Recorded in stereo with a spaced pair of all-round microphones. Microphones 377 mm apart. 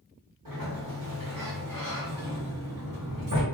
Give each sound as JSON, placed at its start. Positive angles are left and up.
{"t": 0.5, "sound": "a sliding door", "side_deg": -60, "distance_m": 1.1}